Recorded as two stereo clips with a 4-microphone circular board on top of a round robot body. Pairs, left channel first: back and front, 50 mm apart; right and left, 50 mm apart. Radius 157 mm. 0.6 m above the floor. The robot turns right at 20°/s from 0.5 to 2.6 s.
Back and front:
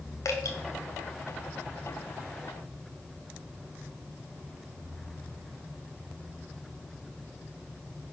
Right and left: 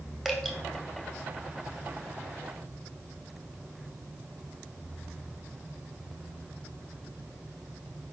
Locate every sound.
0.2 s dripping: 175° left, 1.5 m; by 0.6 s straight behind, 1.5 m